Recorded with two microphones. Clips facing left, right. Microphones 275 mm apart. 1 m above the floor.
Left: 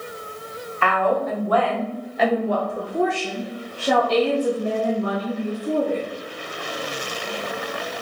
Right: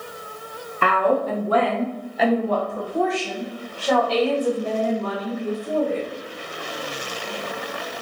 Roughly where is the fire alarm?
I don't hear a fire alarm.